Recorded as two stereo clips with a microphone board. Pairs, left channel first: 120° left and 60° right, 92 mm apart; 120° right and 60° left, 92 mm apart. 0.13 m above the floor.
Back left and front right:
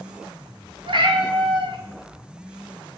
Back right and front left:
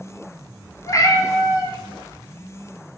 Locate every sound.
0.9 s a cat meowing: 75° right, 0.5 m